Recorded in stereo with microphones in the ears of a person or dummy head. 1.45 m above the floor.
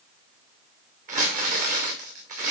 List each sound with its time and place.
1.1 s crumpling: 50° right (ahead or behind), 2.5 m